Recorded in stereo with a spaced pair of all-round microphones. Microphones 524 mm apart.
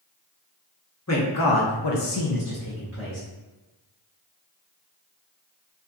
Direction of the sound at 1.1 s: 30° left (ahead or behind).